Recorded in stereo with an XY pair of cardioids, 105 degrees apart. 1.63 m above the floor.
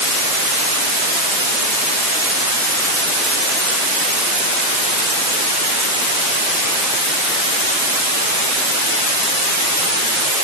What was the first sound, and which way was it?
Only background noise.